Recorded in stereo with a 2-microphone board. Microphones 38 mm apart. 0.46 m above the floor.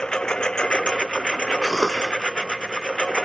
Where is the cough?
Centre (ahead or behind).